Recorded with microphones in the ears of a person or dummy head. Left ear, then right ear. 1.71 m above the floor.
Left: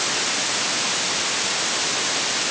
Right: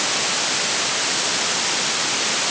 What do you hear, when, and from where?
Only background noise.